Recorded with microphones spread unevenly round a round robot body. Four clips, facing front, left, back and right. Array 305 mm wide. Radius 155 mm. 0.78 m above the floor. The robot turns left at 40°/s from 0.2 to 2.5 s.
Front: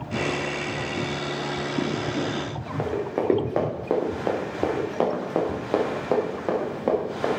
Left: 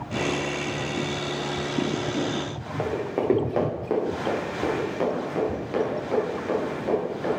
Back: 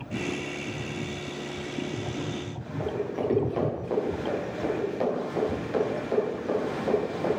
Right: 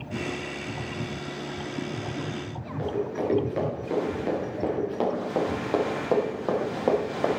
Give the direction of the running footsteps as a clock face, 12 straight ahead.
11 o'clock.